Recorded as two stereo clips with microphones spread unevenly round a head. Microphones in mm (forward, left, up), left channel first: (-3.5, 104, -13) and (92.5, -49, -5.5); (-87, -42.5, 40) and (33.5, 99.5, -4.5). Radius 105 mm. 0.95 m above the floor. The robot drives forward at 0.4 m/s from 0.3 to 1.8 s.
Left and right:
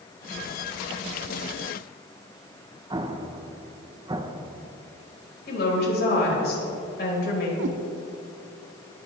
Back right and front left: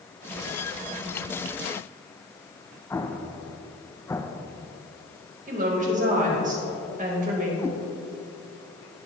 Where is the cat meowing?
55° right, 0.9 m.